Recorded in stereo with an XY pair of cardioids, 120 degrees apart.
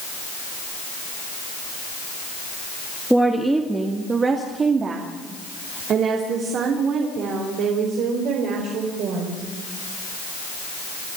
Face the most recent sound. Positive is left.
turn(degrees=-75)